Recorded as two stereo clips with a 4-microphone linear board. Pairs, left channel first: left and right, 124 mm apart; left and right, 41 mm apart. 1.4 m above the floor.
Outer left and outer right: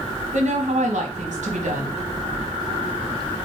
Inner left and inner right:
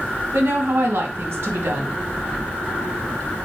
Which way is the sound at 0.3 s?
65° right (ahead or behind).